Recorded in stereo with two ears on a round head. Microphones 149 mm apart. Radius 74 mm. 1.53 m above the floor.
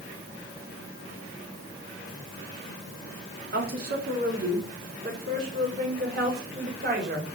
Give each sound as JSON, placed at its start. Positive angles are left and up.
{"t": 3.5, "sound": "a woman speaking", "side_deg": -60, "distance_m": 3.0}